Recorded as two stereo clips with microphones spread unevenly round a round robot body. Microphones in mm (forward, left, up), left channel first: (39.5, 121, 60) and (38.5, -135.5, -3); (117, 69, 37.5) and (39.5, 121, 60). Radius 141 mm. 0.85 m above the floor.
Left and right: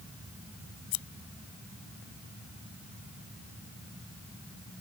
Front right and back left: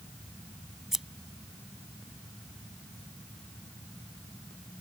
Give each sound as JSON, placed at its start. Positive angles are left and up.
{"t": 0.9, "sound": "scissors", "azimuth_deg": 60}